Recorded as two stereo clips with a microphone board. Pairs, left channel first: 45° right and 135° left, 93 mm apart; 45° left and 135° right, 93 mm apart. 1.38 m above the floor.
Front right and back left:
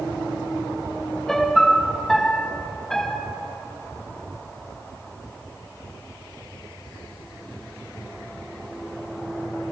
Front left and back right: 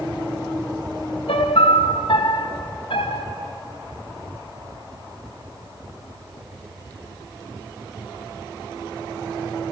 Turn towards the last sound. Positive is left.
turn(degrees=40)